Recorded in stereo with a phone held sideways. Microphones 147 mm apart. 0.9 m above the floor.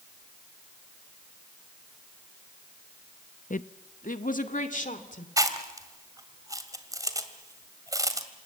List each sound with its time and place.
3.5 s a woman speaking: 65° left (ahead or behind), 0.7 m; by 5.3 s 60° left (ahead or behind), 3 m
5.4 s chewing: 25° right (ahead or behind), 1.9 m